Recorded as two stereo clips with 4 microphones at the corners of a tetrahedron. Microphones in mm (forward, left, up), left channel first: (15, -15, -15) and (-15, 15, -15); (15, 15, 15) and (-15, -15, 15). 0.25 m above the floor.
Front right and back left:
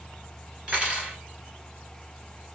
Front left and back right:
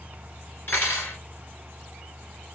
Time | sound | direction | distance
0.7 | cutlery clinking | 75° left | 2 m